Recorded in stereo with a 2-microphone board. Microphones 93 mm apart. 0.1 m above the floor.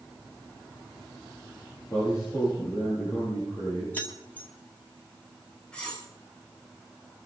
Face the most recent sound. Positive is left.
turn(degrees=10)  # may be behind; listen again after turning